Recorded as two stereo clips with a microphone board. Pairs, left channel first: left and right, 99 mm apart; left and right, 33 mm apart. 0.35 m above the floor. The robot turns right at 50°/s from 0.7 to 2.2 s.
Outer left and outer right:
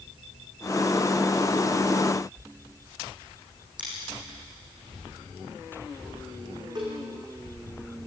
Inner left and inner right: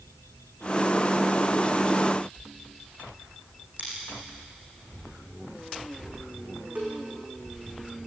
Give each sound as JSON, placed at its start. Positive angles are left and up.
{"t": 3.8, "sound": "scissors", "side_deg": -50, "distance_m": 8.0}
{"t": 6.8, "sound": "a cowbell", "side_deg": -45, "distance_m": 5.5}